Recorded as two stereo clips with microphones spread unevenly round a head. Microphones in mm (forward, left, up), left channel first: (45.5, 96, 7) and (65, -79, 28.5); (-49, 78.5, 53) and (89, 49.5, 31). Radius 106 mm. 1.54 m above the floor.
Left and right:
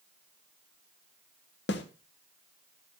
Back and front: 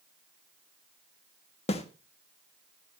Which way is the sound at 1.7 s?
135° left.